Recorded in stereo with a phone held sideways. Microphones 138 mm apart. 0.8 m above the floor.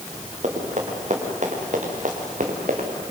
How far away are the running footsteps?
About 6 m.